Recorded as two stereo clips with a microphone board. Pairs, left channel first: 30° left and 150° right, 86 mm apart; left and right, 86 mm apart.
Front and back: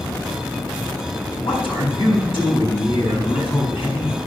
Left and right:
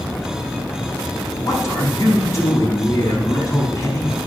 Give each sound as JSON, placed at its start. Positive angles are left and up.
{"t": 1.3, "sound": "a man speaking", "azimuth_deg": 35, "distance_m": 5.0}